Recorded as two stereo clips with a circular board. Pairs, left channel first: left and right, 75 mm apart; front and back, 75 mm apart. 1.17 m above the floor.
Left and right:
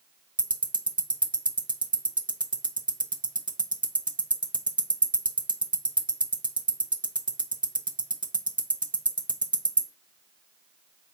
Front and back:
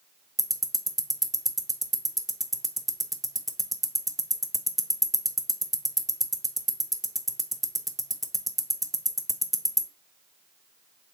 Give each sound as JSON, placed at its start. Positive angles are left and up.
{"t": 0.4, "sound": "ticking", "azimuth_deg": -90, "distance_m": 0.6}